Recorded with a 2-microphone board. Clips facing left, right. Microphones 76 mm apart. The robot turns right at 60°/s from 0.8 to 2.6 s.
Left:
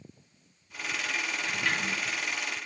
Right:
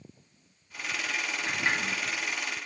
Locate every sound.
1.5 s a sliding door: 40° right, 2 m; by 2.0 s 5° right, 2 m